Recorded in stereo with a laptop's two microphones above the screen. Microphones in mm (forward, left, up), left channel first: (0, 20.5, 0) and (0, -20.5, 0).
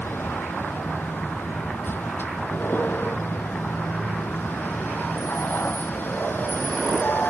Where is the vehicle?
60° left (ahead or behind); by 7.3 s 55° left (ahead or behind).